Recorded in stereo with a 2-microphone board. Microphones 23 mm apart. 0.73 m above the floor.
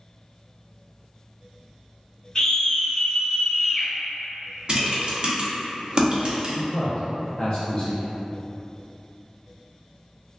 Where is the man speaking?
35° left (ahead or behind), 0.6 m.